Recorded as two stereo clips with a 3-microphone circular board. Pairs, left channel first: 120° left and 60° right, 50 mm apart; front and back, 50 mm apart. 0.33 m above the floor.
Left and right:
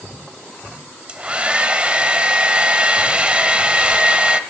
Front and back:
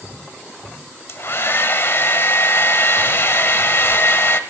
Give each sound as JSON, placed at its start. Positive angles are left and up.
{"t": 1.1, "sound": "a hair dryer", "azimuth_deg": 0, "distance_m": 0.6}